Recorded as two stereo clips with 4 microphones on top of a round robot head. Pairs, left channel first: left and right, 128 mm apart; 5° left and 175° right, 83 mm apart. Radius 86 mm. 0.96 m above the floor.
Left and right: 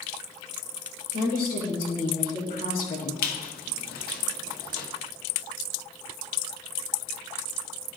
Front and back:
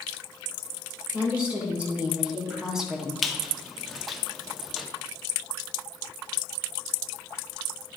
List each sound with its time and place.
1.1 s a woman speaking: 110° left, 3.5 m; by 3.1 s 95° left, 1.3 m
3.2 s a squeak: 95° left, 1.2 m